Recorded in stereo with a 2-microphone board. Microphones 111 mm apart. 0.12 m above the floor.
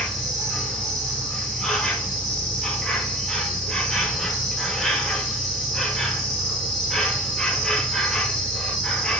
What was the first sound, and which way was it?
An insect, 5° left (ahead or behind).